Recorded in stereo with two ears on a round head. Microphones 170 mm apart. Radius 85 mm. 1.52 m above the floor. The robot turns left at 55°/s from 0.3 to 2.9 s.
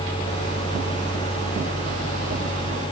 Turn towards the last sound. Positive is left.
No sound to turn to.